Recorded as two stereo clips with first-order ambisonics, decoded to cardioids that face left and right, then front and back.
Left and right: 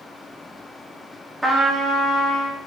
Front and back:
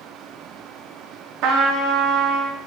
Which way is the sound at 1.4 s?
175° right.